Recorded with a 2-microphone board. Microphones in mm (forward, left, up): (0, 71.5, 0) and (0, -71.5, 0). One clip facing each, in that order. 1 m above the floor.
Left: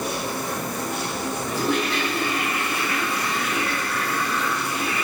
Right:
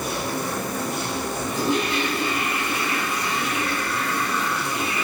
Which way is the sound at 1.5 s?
20° right (ahead or behind).